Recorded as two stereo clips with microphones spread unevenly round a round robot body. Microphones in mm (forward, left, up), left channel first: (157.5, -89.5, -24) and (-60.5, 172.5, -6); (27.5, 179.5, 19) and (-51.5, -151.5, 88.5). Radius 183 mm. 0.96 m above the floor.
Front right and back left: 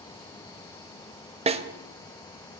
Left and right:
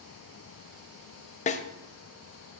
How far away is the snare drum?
About 0.7 m.